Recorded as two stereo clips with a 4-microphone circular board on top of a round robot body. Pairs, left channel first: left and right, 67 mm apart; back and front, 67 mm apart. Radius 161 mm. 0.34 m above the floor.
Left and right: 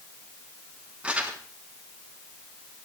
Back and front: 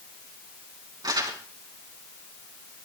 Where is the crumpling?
15° right, 4.5 m.